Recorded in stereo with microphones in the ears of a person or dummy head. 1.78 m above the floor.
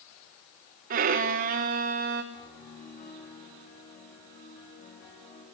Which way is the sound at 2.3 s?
50° left (ahead or behind).